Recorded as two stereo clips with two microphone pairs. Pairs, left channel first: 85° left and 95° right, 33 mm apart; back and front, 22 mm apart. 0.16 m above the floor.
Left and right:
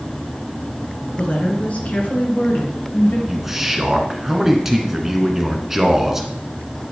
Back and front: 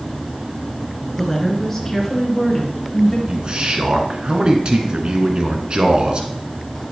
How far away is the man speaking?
About 1.4 m.